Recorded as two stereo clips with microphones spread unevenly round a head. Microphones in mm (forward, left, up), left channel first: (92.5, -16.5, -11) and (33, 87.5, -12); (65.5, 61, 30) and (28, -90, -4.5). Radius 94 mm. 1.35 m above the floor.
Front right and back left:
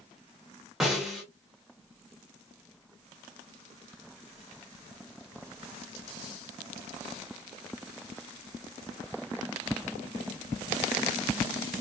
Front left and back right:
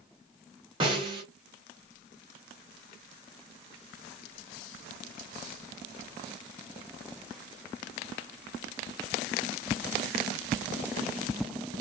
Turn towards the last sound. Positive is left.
turn(degrees=-155)